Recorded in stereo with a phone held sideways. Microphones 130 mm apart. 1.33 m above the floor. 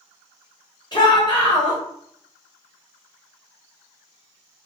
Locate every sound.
0.9 s a shout: 40° left (ahead or behind), 1.1 m